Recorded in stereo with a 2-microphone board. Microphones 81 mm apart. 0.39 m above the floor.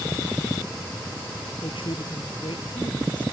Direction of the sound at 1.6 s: 70° left (ahead or behind).